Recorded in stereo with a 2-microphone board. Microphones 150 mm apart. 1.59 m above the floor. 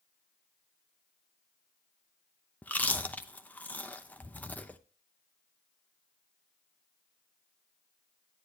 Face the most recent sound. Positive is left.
turn(degrees=10)  # may be behind; listen again after turning